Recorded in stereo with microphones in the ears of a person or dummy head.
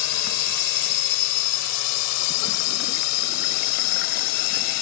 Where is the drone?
80° left; by 4.8 s 85° left.